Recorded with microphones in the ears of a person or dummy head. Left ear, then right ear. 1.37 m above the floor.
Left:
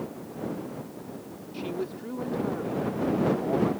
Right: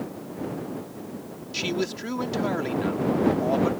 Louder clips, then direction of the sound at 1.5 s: Right 6 dB; 75° right (ahead or behind).